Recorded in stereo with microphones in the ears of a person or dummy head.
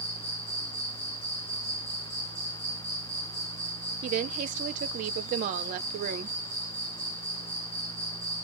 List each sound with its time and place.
0.0 s an insect: 50° left (ahead or behind), 1.2 m
4.0 s a woman speaking: 40° right (ahead or behind), 0.6 m